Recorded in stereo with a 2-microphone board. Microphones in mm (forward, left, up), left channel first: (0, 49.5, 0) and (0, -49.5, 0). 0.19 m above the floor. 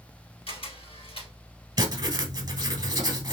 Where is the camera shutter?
70° left (ahead or behind), 1.6 m.